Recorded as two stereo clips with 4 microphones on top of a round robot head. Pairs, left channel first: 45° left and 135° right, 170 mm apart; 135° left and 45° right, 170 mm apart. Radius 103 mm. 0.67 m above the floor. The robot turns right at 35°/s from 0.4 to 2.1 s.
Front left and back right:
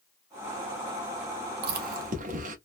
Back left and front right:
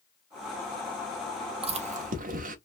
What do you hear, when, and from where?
1.6 s chewing: 105° right, 0.9 m; by 2.5 s 90° right, 0.9 m